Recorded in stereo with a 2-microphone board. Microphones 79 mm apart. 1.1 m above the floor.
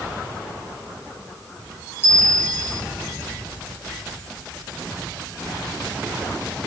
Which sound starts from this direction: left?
A bell, at 2.0 s.